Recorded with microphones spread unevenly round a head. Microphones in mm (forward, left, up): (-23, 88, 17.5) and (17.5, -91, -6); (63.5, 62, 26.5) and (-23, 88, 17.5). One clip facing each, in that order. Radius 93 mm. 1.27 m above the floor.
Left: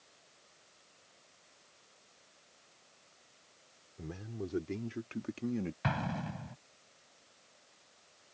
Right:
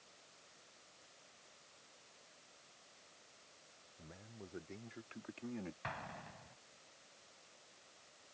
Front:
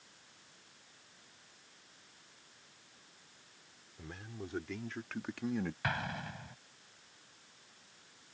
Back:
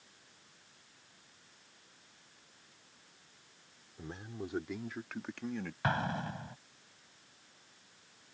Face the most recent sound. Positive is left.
turn(degrees=110)